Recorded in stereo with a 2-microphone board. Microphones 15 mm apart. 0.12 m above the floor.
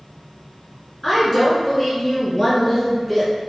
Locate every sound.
1.0 s a woman speaking: 15° left (ahead or behind), 1.1 m